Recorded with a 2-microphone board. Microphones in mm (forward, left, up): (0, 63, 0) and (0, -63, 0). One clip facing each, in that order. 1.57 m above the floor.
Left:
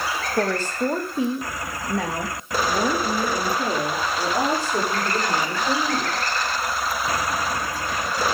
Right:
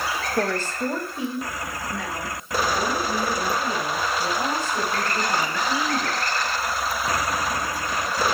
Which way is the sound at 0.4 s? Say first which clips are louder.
Left 3 dB; 10° left (ahead or behind).